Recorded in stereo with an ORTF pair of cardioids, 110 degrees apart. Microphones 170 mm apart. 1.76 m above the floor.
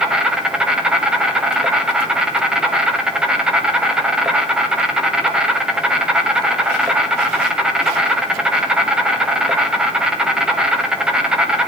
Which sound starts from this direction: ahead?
An insect, at 0.0 s.